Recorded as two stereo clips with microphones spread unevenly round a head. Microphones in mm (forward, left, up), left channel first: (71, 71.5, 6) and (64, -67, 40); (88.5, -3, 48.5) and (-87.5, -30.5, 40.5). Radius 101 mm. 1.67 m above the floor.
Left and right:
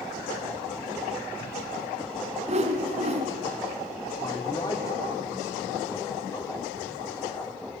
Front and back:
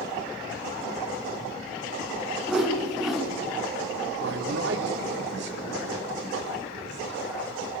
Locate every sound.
2.5 s a whoosh: 80° right, 3 m
4.2 s a man speaking: 160° left, 4.5 m